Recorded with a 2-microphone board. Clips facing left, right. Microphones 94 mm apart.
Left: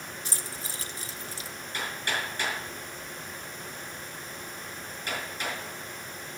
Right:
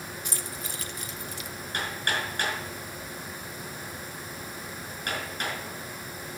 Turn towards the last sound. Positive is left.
turn(degrees=-65)  # may be behind; listen again after turning